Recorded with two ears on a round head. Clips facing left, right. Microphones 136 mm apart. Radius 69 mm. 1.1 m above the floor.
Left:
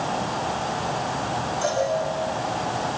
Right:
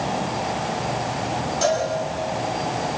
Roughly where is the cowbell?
Right.